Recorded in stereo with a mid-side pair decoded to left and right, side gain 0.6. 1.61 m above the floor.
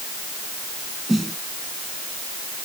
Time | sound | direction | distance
1.1 | a snare drum | 5° right | ?